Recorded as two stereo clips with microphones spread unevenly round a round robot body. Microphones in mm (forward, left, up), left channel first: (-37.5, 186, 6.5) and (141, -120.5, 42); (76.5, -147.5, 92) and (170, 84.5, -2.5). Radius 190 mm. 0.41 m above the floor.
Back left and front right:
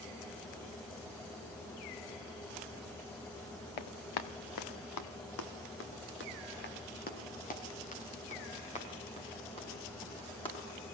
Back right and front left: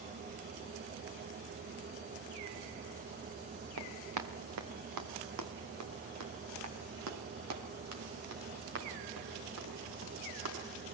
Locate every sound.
3.8 s running footsteps: 115° left, 2 m; by 10.5 s 45° left, 10.5 m